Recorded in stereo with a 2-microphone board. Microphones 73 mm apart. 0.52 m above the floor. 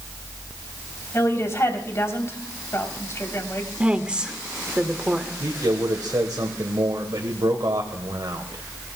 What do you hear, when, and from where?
1.1 s a woman speaking: 40° left (ahead or behind), 3.5 m
3.8 s a woman speaking: 15° right (ahead or behind), 1.6 m
5.4 s a man speaking: 65° right (ahead or behind), 1.7 m